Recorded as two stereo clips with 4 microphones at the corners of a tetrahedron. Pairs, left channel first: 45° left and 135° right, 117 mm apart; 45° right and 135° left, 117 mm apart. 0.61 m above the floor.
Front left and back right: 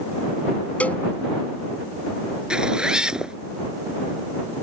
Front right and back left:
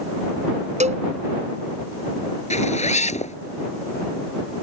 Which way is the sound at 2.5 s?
50° right.